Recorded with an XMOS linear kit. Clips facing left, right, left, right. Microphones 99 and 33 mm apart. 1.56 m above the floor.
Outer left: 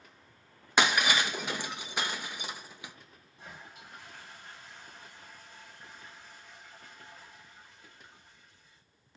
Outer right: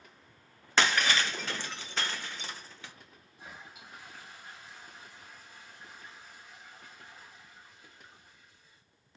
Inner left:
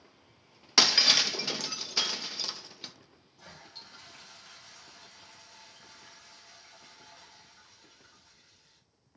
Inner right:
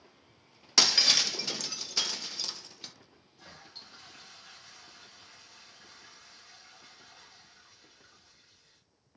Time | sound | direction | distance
0.8 | breaking glass | 15° left (ahead or behind) | 0.6 m
3.4 | a toilet flushing | 5° right (ahead or behind) | 3.5 m